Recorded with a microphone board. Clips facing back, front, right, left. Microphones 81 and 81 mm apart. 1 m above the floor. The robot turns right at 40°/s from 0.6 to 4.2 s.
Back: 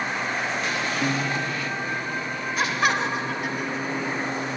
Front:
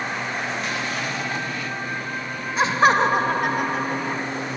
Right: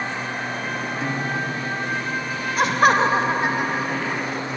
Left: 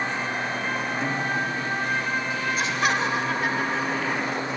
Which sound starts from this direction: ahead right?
Laughter, at 2.6 s.